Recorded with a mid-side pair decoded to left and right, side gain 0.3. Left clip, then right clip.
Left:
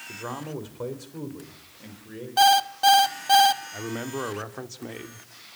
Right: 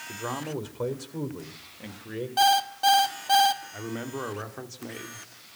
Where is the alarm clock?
35° left, 1.1 m.